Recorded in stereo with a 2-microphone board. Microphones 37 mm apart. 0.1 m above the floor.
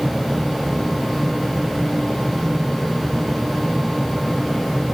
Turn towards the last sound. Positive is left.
No sound to turn to.